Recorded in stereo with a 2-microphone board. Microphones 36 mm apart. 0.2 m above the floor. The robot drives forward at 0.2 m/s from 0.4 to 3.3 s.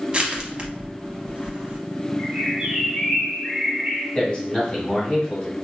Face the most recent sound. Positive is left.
turn(degrees=25)  # may be behind; listen again after turning